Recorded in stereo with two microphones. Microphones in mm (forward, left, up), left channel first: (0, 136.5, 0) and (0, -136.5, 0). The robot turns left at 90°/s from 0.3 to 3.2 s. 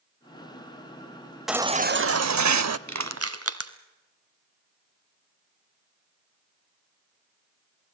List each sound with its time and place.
1.5 s a baby crying: straight ahead, 0.5 m; by 2.8 s 120° right, 0.5 m
2.9 s crushing: 90° right, 1.2 m; by 3.7 s 60° right (ahead or behind), 1.2 m